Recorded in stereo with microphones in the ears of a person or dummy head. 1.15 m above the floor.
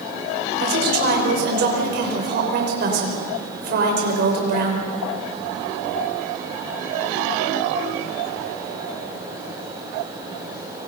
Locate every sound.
0.6 s a woman speaking: 55° right (ahead or behind), 5.5 m